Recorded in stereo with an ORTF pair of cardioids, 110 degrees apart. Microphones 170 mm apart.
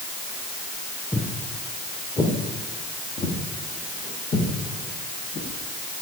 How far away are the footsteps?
About 5.5 m.